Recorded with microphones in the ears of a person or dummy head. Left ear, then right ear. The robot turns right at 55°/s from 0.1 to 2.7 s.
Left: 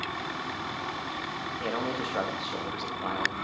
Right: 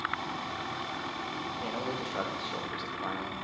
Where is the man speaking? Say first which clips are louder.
Left 6 dB; 125° left, 3 m; by 3.4 s 175° right, 3 m.